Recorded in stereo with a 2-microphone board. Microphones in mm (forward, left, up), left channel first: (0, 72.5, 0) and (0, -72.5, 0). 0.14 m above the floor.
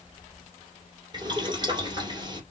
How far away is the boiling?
About 2 m.